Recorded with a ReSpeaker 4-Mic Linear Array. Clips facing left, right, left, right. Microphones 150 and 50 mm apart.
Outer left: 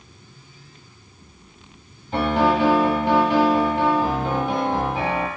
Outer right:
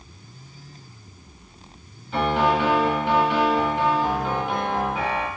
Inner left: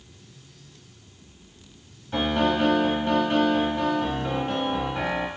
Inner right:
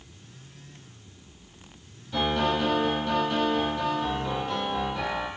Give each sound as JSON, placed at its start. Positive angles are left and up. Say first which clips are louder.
{"t": 2.1, "sound": "a piano", "louder": "outer left 2 dB, inner left 2 dB", "side_deg": 40, "distance_m": 1.2}